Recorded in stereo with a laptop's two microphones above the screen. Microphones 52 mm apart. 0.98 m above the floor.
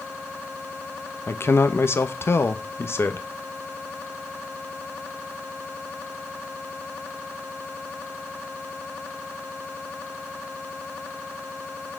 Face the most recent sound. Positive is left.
turn(degrees=50)  # may be behind; listen again after turning